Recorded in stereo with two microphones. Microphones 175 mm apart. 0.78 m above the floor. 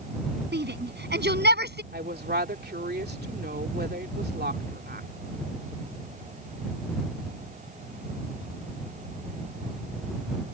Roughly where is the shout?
Right.